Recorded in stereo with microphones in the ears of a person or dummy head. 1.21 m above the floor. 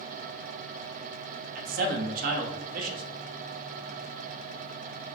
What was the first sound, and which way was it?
A man speaking, 45° right (ahead or behind).